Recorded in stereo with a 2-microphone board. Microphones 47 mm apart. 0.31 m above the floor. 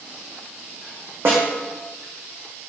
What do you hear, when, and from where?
1.2 s a snare drum: 60° right (ahead or behind), 3 m